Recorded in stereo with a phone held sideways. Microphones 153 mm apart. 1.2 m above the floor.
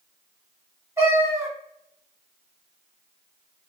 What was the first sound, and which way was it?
A cat meowing, 20° right (ahead or behind).